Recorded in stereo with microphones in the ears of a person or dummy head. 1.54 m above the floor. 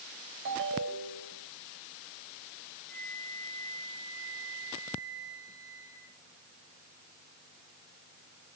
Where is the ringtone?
70° right (ahead or behind), 4 m.